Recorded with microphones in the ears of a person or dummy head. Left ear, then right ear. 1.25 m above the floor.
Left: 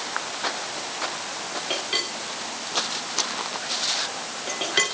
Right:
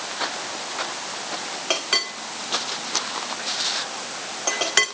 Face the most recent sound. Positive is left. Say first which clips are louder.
# right 4 dB
turn(degrees=-45)  # may be behind; listen again after turning